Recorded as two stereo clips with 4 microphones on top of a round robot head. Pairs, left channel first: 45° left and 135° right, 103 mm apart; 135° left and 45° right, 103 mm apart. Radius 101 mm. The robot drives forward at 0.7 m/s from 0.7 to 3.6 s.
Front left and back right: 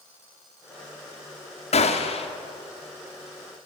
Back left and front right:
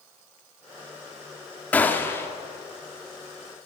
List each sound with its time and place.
1.7 s a gunshot: 55° left, 2.5 m; by 2.3 s 65° left, 2 m